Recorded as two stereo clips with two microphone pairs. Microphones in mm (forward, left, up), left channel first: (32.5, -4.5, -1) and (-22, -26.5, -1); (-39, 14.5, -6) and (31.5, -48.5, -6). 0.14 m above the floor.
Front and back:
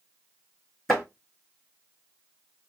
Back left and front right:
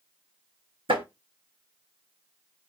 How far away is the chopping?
About 3 m.